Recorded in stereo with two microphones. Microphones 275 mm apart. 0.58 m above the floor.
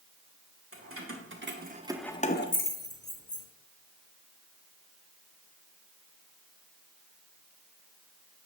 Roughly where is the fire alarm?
No fire alarm in this recording.